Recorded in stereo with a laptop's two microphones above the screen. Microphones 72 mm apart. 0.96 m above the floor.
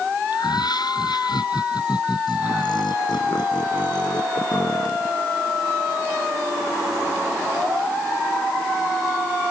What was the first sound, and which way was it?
Laughter, 75° left (ahead or behind).